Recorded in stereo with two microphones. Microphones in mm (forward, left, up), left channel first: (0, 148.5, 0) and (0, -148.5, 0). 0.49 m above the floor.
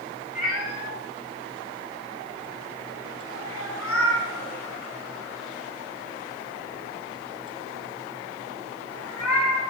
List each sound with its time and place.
0.3 s a cat meowing: 30° left (ahead or behind), 8.5 m; by 9.7 s 65° left (ahead or behind), 14 m